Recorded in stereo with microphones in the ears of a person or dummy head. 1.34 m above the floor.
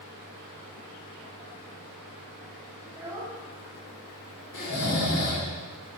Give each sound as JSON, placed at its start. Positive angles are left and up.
{"t": 2.9, "sound": "a child speaking", "side_deg": -10, "distance_m": 1.8}
{"t": 4.5, "sound": "snoring", "side_deg": 80, "distance_m": 2.0}